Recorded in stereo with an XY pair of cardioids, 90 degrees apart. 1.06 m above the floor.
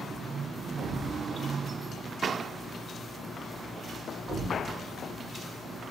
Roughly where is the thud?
Ahead right.